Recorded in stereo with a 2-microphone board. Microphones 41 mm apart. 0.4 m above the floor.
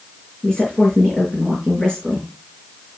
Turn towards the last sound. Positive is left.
turn(degrees=10)  # may be behind; listen again after turning